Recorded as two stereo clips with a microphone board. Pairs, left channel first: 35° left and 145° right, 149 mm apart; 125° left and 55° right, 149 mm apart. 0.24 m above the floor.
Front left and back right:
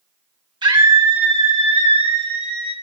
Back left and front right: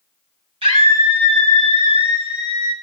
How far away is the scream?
About 1.6 m.